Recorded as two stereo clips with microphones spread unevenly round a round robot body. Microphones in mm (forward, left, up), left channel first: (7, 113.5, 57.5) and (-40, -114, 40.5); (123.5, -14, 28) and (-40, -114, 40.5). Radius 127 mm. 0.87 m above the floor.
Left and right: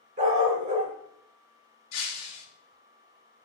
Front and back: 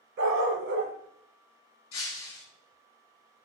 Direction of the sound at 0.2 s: 155° right.